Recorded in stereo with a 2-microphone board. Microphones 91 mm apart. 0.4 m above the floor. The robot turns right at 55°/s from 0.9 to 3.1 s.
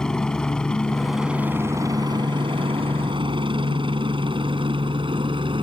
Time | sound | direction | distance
0.0 | a helicopter | 5° left (ahead or behind) | ?